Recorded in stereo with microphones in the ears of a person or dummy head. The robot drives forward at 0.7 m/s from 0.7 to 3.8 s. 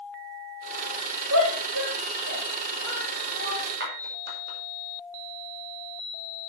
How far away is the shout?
About 3.5 m.